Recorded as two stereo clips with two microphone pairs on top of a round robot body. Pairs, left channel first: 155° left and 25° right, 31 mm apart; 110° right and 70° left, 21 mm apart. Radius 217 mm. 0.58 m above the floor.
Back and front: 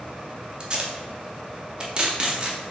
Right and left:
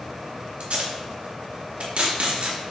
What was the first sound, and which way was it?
Tape being pulled, 35° left.